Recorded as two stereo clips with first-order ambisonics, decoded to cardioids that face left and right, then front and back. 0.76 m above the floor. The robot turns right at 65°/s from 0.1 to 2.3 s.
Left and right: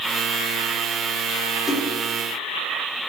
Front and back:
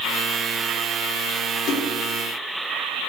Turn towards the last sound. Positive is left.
turn(degrees=45)